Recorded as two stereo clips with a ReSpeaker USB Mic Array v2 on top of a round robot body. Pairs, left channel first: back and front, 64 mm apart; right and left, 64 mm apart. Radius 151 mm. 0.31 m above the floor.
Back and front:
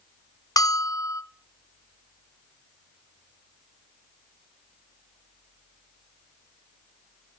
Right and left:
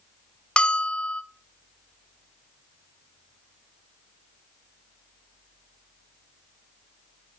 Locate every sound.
0.6 s a bell: 165° right, 0.7 m